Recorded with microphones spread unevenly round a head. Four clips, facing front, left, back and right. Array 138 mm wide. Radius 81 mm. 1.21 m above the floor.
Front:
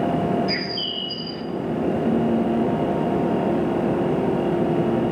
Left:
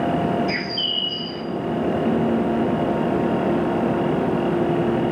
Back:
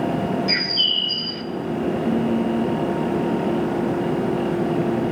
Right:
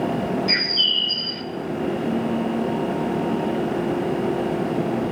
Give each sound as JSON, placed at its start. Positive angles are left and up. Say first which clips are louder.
{"t": 0.5, "sound": "a bird", "louder": "left 1 dB, even", "azimuth_deg": -140, "distance_m": 1.1}